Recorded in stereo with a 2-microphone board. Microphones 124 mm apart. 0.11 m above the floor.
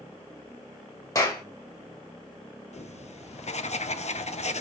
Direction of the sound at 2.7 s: 65° left (ahead or behind).